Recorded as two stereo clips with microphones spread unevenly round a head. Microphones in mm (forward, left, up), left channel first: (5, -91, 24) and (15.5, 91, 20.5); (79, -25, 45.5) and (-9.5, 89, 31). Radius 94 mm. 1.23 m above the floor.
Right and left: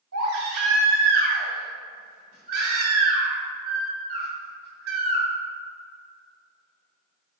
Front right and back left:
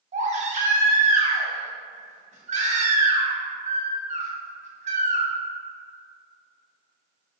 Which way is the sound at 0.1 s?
90° left.